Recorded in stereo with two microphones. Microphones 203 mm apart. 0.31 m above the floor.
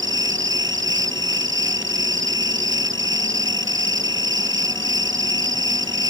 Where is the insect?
70° right (ahead or behind).